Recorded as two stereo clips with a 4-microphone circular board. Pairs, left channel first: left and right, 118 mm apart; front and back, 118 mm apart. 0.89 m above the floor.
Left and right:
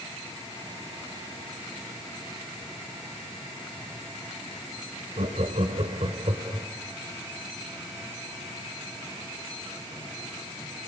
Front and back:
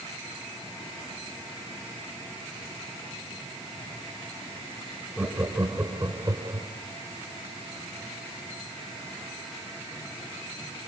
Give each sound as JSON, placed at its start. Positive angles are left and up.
{"t": 5.2, "sound": "laughter", "azimuth_deg": -105, "distance_m": 4.0}